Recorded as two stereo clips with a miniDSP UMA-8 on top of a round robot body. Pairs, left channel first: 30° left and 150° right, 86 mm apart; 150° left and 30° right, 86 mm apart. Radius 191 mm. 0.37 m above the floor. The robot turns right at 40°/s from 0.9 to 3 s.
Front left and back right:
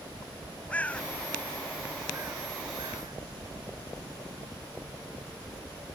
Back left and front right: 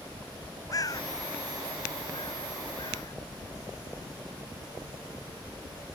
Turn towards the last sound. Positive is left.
turn(degrees=-170)